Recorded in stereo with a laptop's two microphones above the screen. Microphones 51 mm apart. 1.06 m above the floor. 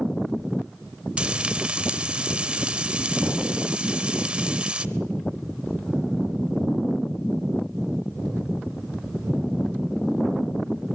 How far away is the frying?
About 0.8 m.